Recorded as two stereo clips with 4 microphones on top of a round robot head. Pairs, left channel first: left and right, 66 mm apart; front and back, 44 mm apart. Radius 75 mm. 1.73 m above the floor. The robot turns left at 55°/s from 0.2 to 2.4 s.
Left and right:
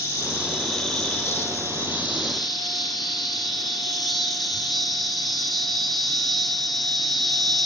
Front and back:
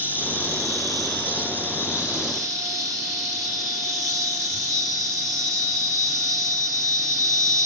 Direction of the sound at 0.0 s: 60° right.